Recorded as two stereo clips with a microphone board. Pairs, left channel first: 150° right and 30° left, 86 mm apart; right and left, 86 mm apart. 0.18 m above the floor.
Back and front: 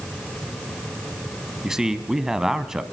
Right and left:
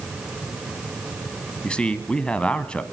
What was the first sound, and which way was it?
A man speaking, 40° right.